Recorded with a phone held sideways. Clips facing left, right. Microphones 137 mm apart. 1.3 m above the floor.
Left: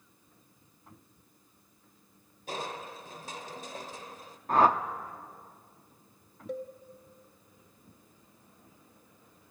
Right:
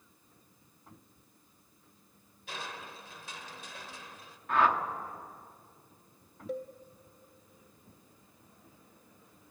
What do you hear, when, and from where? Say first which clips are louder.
2.5 s crushing: left 6 dB; 40° left (ahead or behind), 1.3 m
4.5 s a whoosh: left 3 dB; 35° left (ahead or behind), 1.1 m
6.5 s a cowbell: even; centre (ahead or behind), 1.7 m